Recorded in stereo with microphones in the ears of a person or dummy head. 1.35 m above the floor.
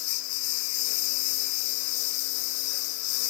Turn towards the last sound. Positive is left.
turn(degrees=65)  # may be behind; listen again after turning